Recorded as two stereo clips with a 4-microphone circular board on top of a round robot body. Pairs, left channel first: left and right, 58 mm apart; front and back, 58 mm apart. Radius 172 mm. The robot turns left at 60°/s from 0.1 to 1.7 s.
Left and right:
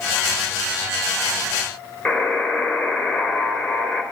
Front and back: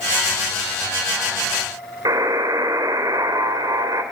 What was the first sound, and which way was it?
A buzzer, 160° left.